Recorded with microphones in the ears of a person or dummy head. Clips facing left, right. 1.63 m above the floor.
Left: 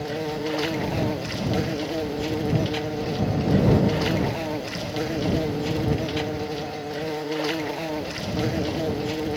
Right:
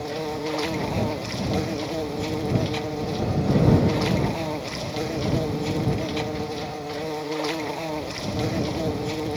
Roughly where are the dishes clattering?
I don't hear dishes clattering.